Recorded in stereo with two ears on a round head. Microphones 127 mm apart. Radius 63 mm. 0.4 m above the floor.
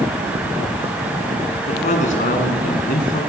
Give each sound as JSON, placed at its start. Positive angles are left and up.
{"t": 1.7, "sound": "a man speaking", "side_deg": 50, "distance_m": 5.0}